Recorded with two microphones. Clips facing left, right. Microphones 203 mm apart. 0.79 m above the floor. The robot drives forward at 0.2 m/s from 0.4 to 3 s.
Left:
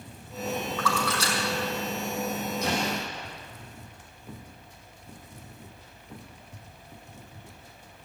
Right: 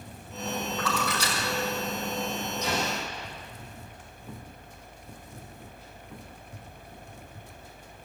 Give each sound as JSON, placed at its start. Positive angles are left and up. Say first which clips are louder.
{"t": 0.8, "sound": "a splash", "louder": "left 1 dB", "side_deg": -15, "distance_m": 5.5}
{"t": 2.6, "sound": "an explosion", "louder": "left 1 dB", "side_deg": 60, "distance_m": 6.5}